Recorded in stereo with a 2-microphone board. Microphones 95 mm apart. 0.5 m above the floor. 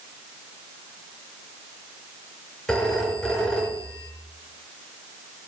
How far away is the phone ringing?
About 5 m.